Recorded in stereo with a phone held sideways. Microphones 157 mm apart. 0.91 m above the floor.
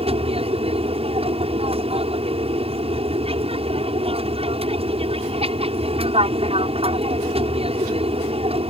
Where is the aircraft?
40° right (ahead or behind).